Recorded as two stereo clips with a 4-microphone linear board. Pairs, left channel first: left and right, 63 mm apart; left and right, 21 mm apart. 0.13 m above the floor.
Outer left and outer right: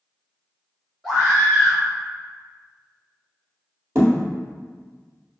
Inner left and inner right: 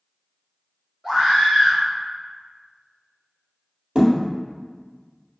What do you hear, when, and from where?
1.0 s a scream: 5° left (ahead or behind), 1.8 m
4.0 s a thud: 45° right (ahead or behind), 1.5 m